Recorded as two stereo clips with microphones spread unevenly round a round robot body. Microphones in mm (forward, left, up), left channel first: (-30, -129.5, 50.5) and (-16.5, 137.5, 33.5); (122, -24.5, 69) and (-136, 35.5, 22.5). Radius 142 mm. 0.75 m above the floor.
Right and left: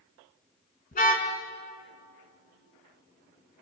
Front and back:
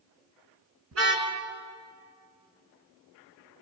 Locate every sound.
0.9 s a car horn: 155° right, 5 m